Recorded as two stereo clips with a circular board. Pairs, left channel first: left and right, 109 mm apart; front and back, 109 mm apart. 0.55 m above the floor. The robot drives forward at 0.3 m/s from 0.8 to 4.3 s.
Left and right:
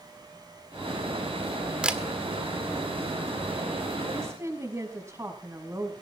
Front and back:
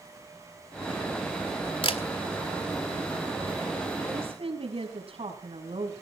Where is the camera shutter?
10° right, 1.7 m.